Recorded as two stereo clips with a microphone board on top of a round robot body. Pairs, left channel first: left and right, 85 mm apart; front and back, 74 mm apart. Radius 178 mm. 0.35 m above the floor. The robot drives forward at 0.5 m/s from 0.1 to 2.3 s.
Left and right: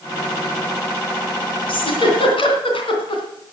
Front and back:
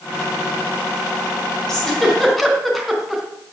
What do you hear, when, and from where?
1.7 s a giggle: 85° left, 3 m; by 3.2 s 90° left, 3 m